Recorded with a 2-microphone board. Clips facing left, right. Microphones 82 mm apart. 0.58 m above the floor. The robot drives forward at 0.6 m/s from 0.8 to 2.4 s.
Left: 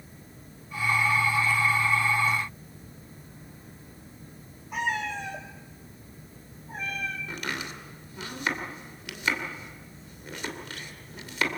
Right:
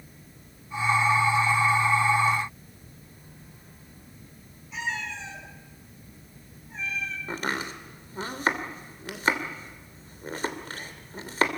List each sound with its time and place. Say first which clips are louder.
4.7 s a cat meowing: left 4 dB; 50° left (ahead or behind), 2.5 m
7.3 s chopping: right 4 dB; 35° right (ahead or behind), 2.5 m